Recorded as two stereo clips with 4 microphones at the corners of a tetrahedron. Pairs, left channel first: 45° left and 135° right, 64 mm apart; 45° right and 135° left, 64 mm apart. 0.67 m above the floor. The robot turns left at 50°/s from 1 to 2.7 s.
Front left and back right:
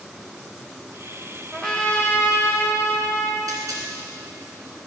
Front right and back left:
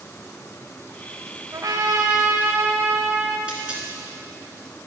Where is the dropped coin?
155° right, 2 m.